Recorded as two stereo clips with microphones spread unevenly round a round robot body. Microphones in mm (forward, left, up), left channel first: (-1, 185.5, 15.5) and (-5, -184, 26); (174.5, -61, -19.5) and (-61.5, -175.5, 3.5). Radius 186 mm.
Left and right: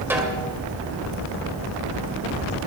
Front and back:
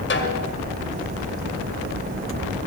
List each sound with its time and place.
0.1 s a snare drum: 5° right, 1.8 m